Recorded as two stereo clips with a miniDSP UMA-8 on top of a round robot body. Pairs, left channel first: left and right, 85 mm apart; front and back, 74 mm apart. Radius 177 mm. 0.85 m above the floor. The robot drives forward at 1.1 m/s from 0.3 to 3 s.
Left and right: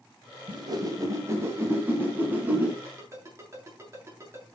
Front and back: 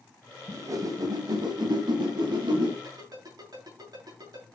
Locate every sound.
0.5 s a whoosh: 130° right, 1.4 m; by 2.7 s 160° right, 3.5 m
2.8 s a ringtone: 150° right, 7.5 m